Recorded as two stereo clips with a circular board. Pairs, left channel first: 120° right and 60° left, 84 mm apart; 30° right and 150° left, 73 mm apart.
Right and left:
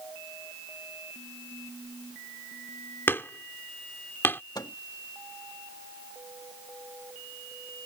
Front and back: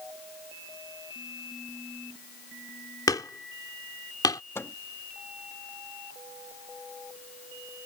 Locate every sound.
3.1 s hammering: 55° right
4.5 s a microwave: 85° right